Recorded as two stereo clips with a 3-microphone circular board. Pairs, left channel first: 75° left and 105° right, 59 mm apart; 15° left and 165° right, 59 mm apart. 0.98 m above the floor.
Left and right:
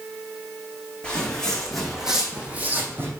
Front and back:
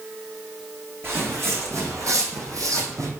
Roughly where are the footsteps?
Behind left.